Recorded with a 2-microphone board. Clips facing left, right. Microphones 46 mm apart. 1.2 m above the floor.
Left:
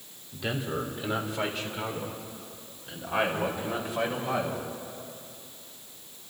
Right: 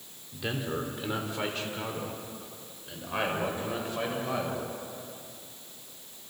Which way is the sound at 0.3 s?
Centre (ahead or behind).